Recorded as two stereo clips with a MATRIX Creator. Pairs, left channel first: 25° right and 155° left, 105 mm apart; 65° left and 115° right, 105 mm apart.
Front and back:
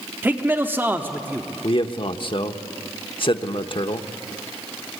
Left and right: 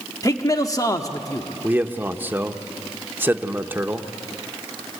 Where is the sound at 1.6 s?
45° right, 1.0 m.